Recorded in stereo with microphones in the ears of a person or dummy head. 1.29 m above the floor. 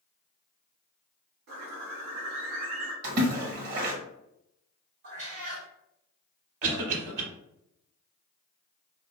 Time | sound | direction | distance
1.5 | a bird | 65° right (ahead or behind) | 1.2 m
3.0 | a splash | 50° right (ahead or behind) | 1.3 m
5.0 | a cat meowing | 50° right (ahead or behind) | 1.5 m
6.6 | a cough | 35° right (ahead or behind) | 1.1 m